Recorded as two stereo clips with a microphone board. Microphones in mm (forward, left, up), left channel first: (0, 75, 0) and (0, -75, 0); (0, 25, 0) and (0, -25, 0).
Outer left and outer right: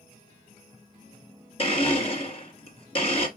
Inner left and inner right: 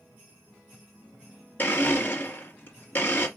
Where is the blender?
40° left (ahead or behind), 1.7 m.